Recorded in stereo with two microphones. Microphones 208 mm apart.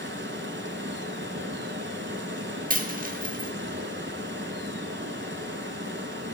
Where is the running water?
60° right (ahead or behind), 0.7 m.